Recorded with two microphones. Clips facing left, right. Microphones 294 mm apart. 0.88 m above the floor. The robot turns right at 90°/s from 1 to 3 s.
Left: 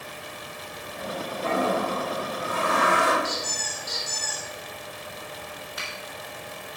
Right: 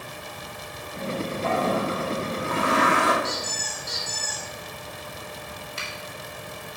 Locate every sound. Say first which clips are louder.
1.4 s a toilet flushing: even; 150° left, 1.4 m; by 3.1 s 70° right, 1.4 m
3.2 s a squeak: right 1 dB; centre (ahead or behind), 2 m
5.8 s a finger snap: right 1 dB; 30° right (ahead or behind), 2 m